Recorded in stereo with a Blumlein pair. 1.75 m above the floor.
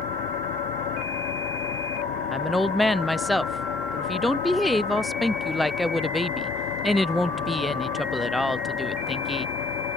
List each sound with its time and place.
0.0 s an engine running: 40° left
2.3 s a woman speaking: straight ahead